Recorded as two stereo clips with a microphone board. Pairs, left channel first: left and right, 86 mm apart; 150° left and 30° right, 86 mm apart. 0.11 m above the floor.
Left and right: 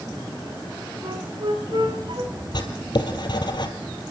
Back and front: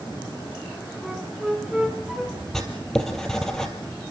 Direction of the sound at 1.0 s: 120° right.